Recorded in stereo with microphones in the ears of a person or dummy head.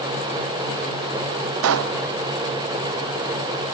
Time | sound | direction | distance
1.6 | a pop | 75° right (ahead or behind) | 0.6 m